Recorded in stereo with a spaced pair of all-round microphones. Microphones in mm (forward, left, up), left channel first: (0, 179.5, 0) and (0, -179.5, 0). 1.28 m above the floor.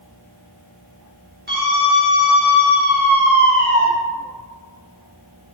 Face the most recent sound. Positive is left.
turn(degrees=-85)